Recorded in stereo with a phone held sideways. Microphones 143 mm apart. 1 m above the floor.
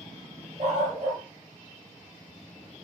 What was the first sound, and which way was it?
A dog barking, 50° right (ahead or behind).